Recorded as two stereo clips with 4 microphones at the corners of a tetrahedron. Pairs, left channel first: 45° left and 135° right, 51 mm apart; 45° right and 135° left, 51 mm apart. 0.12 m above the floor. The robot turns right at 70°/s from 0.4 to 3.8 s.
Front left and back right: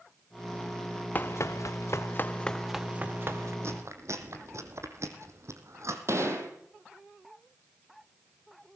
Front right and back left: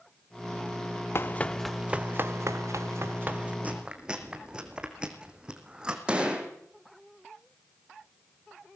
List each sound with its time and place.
1.1 s running footsteps: 10° right, 1.0 m; by 3.5 s 155° right, 2 m
3.6 s chewing: 165° right, 2.5 m; by 6.0 s 155° right, 2.5 m
6.1 s a gunshot: 155° right, 4 m